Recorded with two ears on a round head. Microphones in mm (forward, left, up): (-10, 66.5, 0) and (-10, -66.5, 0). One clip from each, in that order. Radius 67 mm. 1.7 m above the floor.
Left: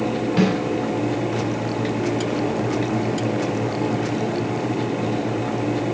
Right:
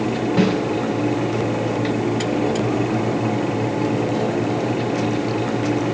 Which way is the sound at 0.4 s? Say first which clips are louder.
Right 1 dB; 40° left (ahead or behind).